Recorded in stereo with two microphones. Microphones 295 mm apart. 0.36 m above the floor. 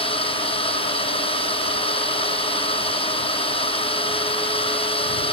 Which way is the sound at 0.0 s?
20° left (ahead or behind).